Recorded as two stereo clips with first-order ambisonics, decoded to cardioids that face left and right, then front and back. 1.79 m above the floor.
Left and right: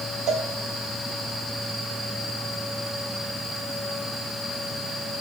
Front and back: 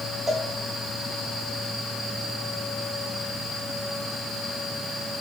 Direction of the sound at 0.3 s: 100° right.